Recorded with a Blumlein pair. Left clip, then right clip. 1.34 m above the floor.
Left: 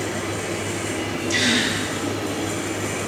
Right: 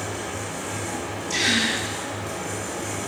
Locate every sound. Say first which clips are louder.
0.0 s a fan: left 4 dB; 20° left, 1.4 m
1.3 s a gasp: left 1 dB; 20° left, 1.0 m